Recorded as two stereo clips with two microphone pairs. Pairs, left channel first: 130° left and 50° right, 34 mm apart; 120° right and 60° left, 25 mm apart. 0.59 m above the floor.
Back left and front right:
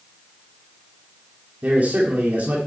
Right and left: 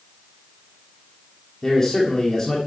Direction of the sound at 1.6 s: 60° right.